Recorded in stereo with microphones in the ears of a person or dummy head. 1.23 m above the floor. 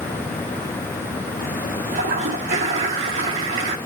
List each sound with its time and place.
1.9 s a toilet flushing: 45° right (ahead or behind), 1.7 m